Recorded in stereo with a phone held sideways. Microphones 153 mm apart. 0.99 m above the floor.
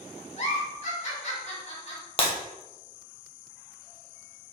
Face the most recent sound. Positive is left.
turn(degrees=40)  # may be behind; listen again after turning